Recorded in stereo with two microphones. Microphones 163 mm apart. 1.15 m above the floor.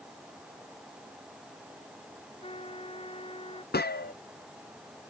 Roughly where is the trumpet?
Left.